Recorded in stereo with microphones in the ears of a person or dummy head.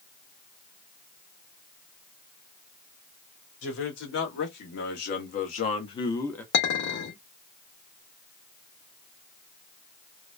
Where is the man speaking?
70° left (ahead or behind), 1.7 m; by 6.4 s 5° left (ahead or behind), 0.7 m.